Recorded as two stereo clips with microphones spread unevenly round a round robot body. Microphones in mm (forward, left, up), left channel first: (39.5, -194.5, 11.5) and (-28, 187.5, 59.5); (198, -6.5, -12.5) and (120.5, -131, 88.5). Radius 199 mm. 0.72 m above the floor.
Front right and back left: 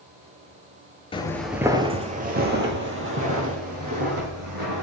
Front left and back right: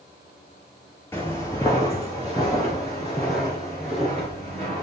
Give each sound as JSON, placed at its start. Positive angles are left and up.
{"t": 1.1, "sound": "footsteps", "azimuth_deg": -155, "distance_m": 0.7}